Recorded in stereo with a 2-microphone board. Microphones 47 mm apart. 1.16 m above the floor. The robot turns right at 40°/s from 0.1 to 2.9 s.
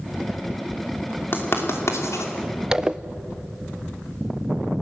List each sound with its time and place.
1.3 s writing: 45° left (ahead or behind), 3 m; by 2.3 s 85° left, 3 m
2.7 s a zipper: 15° right (ahead or behind), 0.5 m; by 3.0 s 20° right (ahead or behind), 0.5 m